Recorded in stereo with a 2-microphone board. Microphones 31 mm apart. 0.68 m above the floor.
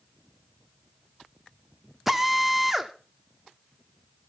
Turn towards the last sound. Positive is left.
turn(degrees=-5)  # may be behind; listen again after turning